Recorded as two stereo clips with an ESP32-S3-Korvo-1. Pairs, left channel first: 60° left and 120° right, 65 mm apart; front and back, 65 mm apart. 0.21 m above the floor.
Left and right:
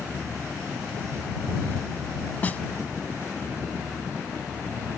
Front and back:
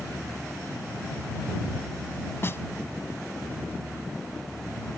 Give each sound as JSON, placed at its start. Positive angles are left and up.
{"t": 2.4, "sound": "a snare drum", "azimuth_deg": 15}